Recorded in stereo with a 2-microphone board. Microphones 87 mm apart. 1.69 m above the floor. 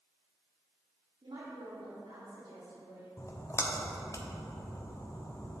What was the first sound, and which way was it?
A woman speaking, 80° right.